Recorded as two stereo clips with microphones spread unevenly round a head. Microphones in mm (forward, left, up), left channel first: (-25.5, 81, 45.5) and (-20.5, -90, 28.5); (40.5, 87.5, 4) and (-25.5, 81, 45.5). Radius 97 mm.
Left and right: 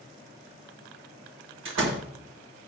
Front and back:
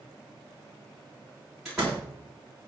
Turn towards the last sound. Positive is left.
turn(degrees=-85)